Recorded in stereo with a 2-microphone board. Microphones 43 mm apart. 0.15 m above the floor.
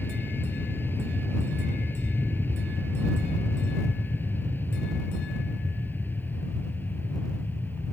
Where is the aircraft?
55° left (ahead or behind); by 7.9 s 50° left (ahead or behind).